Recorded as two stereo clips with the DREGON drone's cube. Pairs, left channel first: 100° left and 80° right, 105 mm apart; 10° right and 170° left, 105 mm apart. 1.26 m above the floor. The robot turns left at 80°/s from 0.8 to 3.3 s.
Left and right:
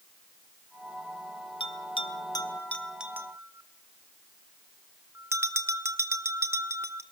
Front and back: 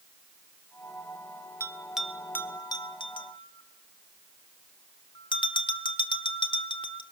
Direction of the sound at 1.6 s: 115° left.